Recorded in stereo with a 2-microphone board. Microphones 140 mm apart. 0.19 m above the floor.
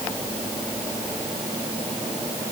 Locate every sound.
Only background noise.